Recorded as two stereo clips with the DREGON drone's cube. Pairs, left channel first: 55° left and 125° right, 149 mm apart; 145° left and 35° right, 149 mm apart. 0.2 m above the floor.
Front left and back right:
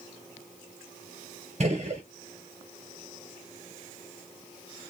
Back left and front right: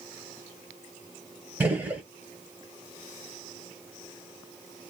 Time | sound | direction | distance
1.6 | a gunshot | 110° right | 1.6 m